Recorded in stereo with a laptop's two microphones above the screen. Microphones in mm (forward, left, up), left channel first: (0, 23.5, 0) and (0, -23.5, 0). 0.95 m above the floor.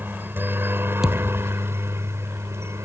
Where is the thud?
10° right (ahead or behind).